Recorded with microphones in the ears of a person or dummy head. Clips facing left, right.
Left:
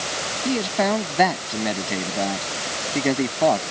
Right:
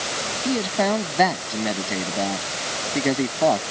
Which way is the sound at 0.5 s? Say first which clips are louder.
Even; centre (ahead or behind).